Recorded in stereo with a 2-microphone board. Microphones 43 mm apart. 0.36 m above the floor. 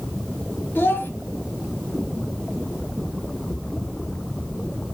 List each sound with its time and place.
0.8 s a child speaking: 60° left (ahead or behind), 1.1 m